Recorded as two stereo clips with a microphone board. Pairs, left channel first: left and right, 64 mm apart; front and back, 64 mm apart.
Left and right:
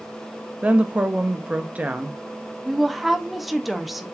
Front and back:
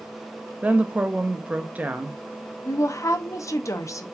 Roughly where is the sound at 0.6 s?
Behind right.